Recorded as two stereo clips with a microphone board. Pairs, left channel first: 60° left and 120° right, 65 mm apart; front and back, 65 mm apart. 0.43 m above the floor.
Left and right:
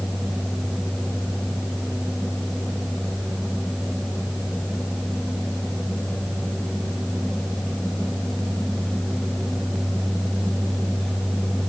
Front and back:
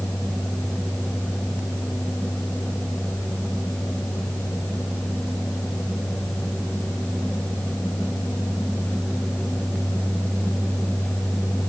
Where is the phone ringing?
No phone ringing in this recording.